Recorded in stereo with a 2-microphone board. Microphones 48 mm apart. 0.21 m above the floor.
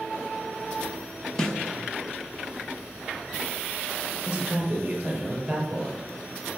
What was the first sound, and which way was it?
A snare drum, 10° left (ahead or behind).